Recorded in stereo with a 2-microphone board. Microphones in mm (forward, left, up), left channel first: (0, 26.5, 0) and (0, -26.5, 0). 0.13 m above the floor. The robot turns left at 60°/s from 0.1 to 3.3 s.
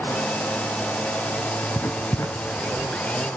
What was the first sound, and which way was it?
Writing, 45° left (ahead or behind).